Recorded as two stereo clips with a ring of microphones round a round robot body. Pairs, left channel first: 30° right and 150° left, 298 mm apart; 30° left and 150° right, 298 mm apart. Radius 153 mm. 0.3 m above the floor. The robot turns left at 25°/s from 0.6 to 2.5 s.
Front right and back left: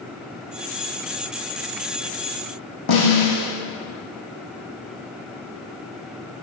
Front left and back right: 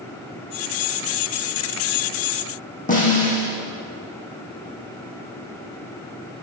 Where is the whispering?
No whispering in this recording.